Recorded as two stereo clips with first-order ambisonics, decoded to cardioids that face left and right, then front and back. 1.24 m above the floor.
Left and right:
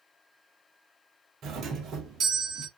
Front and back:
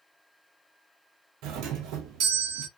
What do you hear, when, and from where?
1.4 s a doorbell: 145° right, 0.6 m